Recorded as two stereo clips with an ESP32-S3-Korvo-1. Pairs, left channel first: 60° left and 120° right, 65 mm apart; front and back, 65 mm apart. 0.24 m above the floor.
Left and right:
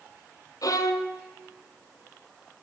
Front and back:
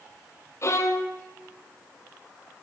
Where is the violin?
40° left, 1.2 m.